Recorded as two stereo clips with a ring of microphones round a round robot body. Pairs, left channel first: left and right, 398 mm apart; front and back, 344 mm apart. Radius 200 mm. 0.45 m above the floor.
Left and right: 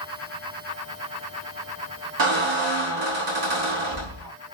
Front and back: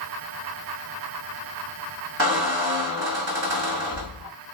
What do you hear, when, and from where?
2.2 s a squeak: 125° right, 1.4 m